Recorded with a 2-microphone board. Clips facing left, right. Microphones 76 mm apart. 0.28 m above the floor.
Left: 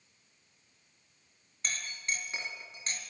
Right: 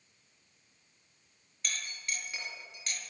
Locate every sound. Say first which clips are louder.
1.6 s a clink: left 3 dB; 30° left (ahead or behind), 2 m